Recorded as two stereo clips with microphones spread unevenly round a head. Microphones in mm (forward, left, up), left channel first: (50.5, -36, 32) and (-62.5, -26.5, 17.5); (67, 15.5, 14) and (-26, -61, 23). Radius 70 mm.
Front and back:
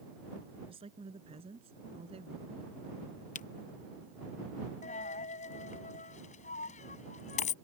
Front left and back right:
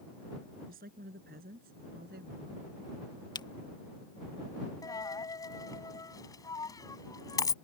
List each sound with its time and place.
0.7 s a woman speaking: 145° right; by 2.7 s 150° right
3.4 s a camera shutter: 10° right
4.8 s a dropped coin: 20° right